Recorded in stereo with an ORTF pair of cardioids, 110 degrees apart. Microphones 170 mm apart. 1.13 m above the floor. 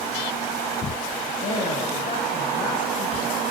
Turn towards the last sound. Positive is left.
turn(degrees=50)